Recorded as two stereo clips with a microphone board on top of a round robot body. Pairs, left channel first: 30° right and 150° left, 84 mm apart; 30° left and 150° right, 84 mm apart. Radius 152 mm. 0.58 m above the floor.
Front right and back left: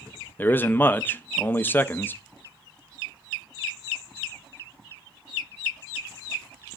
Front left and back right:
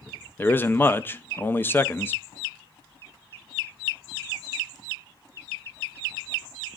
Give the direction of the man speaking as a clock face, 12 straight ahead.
12 o'clock.